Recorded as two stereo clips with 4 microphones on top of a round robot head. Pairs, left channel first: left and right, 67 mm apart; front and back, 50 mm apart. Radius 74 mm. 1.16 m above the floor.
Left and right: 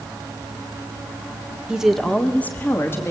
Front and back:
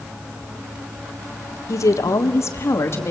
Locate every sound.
1.7 s a woman speaking: 15° right, 1.4 m; by 3.1 s 35° left, 3 m